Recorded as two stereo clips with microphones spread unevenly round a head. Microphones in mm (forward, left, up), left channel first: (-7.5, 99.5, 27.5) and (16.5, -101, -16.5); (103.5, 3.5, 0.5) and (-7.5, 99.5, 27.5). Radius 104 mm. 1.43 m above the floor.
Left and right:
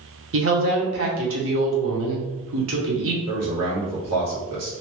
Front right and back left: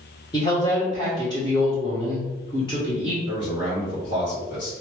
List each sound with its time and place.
0.3 s a woman speaking: 115° right, 1.0 m
3.2 s a man speaking: 75° right, 1.4 m